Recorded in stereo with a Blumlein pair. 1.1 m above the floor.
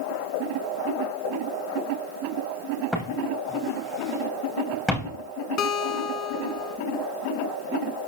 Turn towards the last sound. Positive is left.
turn(degrees=30)